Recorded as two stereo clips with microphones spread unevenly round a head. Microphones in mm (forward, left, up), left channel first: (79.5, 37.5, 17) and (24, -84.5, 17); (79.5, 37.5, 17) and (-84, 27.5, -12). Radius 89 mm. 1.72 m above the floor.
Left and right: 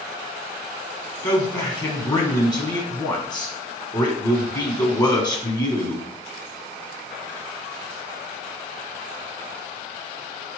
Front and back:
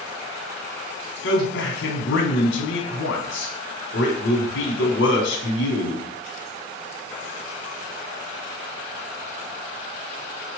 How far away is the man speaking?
About 1.0 m.